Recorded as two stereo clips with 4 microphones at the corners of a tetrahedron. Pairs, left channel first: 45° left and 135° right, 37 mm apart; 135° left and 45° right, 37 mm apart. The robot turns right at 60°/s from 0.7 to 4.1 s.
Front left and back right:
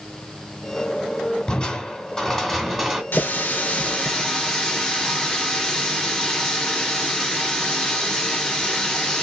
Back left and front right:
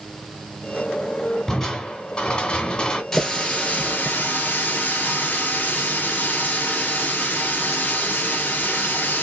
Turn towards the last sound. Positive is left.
turn(degrees=110)